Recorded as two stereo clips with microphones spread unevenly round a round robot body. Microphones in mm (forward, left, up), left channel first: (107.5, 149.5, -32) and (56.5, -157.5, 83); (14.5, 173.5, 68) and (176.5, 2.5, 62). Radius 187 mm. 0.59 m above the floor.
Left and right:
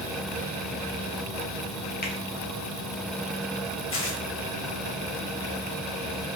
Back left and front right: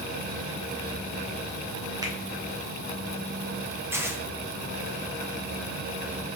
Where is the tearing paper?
35° left, 3 m.